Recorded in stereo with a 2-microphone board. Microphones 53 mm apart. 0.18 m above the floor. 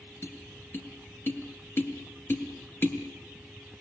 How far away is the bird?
No bird in this recording.